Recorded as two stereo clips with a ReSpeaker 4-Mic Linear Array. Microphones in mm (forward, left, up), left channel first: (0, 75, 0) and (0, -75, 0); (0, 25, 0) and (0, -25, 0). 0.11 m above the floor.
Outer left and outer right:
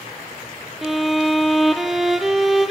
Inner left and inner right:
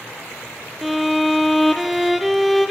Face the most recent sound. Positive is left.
turn(degrees=0)  # may be behind; listen again after turning